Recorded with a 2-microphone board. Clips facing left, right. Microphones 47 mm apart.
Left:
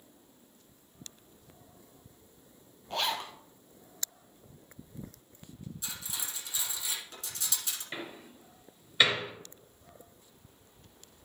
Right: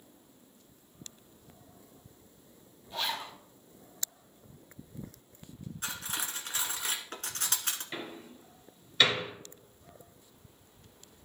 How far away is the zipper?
About 1.3 m.